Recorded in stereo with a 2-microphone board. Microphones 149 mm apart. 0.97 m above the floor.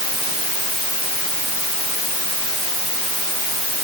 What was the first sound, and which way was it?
Only background noise.